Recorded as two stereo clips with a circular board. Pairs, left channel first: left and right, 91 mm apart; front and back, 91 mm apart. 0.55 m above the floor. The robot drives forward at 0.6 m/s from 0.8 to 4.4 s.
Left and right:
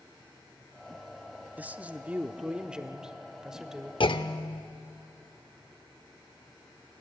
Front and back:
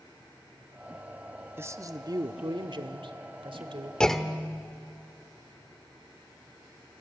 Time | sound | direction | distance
1.6 | a man speaking | 145° right | 0.6 m
4.0 | a clunk | 80° left | 0.8 m